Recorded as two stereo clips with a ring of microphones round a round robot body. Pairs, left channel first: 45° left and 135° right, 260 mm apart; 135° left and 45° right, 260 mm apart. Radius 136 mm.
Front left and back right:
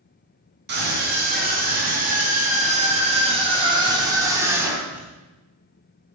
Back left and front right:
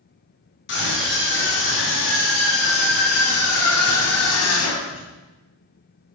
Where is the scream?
175° left, 4 m; by 5.1 s 140° left, 3 m.